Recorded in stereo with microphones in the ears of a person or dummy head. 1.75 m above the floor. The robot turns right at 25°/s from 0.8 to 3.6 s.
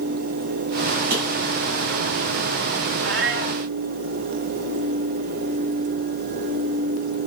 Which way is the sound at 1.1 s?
50° right (ahead or behind).